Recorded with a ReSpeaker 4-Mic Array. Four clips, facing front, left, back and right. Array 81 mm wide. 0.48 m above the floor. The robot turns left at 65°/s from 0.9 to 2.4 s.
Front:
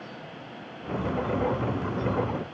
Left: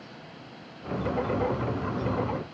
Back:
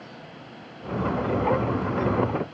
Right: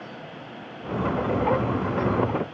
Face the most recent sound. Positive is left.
No sound to turn to.